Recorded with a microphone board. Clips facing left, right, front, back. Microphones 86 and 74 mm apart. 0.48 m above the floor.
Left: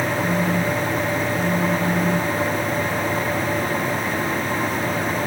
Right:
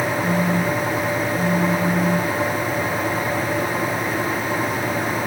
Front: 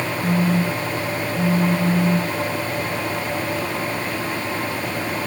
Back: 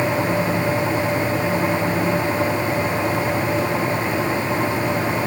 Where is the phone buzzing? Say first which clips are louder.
Right 1 dB, even; 15° right.